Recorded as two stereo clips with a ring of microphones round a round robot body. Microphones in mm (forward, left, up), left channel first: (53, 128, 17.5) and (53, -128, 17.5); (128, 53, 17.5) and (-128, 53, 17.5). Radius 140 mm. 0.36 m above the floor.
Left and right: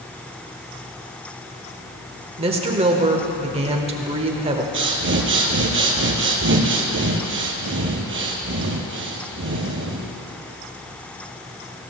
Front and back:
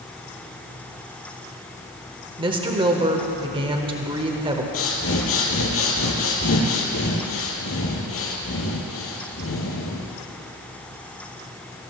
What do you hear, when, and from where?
2.4 s a woman speaking: 130° right, 1.1 m
4.7 s breathing: 45° right, 2.0 m